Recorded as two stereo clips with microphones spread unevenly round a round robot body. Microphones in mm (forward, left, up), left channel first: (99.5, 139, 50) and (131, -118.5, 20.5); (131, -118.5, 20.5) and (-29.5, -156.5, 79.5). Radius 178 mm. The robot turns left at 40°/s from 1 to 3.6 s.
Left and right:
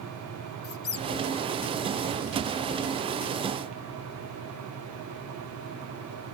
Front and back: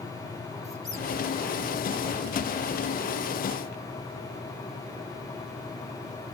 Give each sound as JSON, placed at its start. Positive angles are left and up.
{"t": 0.6, "sound": "a squeak", "azimuth_deg": 105, "distance_m": 0.7}